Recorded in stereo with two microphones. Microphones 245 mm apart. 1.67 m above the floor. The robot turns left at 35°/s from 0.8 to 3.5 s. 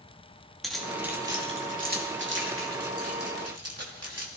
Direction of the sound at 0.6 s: Centre (ahead or behind).